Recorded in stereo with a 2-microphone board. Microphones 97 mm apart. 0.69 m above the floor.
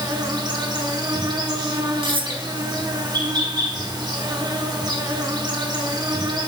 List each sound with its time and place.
0.0 s an insect: 45° right (ahead or behind), 1.3 m
2.0 s cutlery clinking: 60° right (ahead or behind), 0.7 m